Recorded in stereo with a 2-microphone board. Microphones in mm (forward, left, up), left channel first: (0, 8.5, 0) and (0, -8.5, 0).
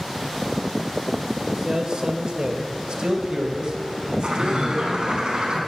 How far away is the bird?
About 4.5 m.